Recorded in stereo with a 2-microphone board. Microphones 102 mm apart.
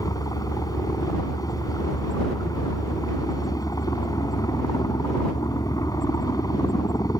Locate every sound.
0.0 s a helicopter: 40° left (ahead or behind)